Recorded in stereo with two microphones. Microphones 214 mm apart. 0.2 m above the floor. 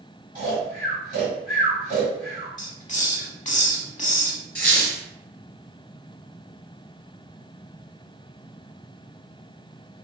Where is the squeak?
45° left (ahead or behind), 1.1 m.